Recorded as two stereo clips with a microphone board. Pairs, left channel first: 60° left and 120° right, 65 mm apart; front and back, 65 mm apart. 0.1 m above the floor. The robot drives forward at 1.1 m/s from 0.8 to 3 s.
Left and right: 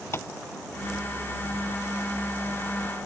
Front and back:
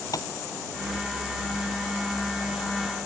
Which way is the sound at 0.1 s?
15° left.